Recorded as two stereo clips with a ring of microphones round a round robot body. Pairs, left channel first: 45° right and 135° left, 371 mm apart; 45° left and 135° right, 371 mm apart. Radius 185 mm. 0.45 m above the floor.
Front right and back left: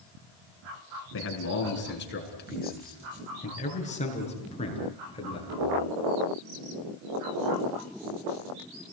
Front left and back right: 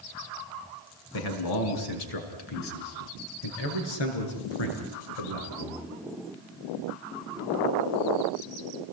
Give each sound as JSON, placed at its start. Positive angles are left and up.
{"t": 1.1, "sound": "a man speaking", "azimuth_deg": 10, "distance_m": 5.0}